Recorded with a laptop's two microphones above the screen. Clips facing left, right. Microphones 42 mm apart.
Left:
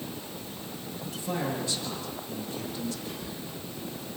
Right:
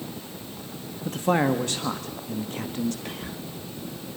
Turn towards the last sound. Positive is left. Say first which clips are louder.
# right 2 dB
turn(degrees=-55)  # may be behind; listen again after turning